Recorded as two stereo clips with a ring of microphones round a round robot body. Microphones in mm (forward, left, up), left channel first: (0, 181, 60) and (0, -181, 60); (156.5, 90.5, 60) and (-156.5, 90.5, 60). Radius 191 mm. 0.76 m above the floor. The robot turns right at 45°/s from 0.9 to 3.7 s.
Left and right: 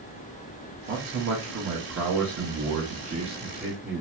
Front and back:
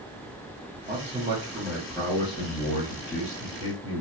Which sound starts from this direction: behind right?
A man speaking, at 0.9 s.